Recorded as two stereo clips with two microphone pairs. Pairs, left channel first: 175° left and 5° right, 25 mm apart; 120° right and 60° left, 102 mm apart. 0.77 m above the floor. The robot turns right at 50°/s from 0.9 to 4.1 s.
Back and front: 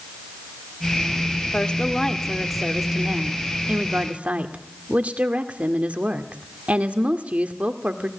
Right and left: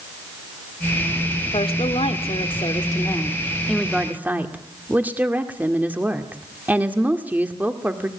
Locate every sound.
1.5 s a woman speaking: 140° right, 2 m; by 8.1 s 15° right, 2 m